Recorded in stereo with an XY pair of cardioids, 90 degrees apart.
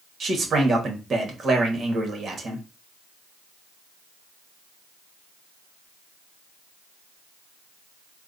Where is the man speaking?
50° right, 1.5 m.